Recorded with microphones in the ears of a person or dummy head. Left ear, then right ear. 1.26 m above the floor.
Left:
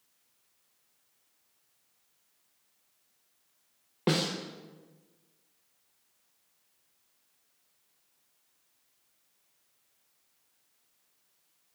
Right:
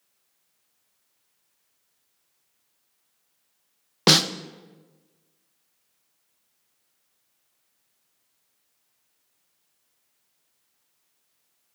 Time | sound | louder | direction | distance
4.1 | a snare drum | right 11 dB | 60° right (ahead or behind) | 0.5 m